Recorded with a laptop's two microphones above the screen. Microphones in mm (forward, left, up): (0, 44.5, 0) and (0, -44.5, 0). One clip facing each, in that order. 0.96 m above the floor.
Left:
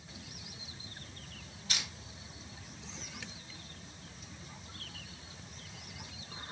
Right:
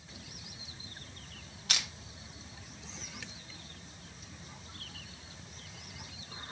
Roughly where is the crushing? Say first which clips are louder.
Right 2 dB; right.